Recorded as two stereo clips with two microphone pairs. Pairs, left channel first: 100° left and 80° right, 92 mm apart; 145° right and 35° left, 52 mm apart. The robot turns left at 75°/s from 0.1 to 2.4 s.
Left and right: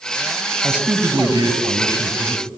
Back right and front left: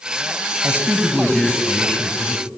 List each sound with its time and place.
0.6 s a man speaking: straight ahead, 2 m; by 2.5 s 130° right, 2 m